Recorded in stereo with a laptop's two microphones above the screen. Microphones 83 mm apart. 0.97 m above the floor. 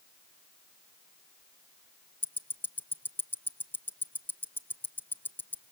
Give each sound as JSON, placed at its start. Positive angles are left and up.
{"t": 2.2, "sound": "ticking", "side_deg": 25, "distance_m": 0.6}